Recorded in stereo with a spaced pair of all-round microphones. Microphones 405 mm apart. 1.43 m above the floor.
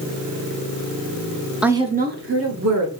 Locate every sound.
1.6 s a woman speaking: centre (ahead or behind), 0.5 m; by 2.9 s 45° right (ahead or behind), 1.1 m